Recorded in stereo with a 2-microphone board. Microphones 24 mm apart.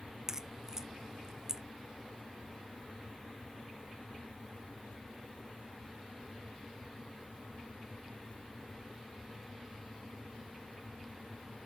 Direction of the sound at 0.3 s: 20° right (ahead or behind).